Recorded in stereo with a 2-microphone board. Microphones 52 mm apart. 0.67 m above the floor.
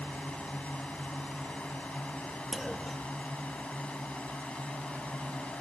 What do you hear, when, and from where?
0.0 s a drone: 25° left (ahead or behind)
2.5 s a clunk: centre (ahead or behind)